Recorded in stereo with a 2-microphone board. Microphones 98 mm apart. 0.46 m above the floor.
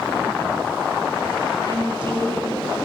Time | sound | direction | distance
1.7 | a woman speaking | 55° right (ahead or behind) | 4.5 m